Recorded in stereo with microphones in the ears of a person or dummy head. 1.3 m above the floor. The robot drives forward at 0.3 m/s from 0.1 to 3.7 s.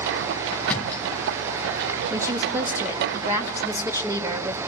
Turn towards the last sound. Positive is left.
turn(degrees=-10)  # may be behind; listen again after turning